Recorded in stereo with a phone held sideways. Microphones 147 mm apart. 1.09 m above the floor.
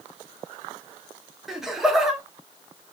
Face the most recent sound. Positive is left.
turn(degrees=0)  # may be behind; listen again after turning